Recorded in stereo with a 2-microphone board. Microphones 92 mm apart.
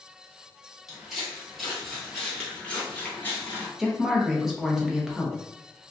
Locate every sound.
0.9 s footsteps: 5° right (ahead or behind), 1.6 m; by 3.7 s 25° left (ahead or behind), 1.3 m
3.8 s a woman speaking: 5° right (ahead or behind), 0.7 m